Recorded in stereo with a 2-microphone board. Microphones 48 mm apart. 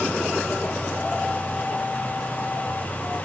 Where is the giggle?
No giggle in this recording.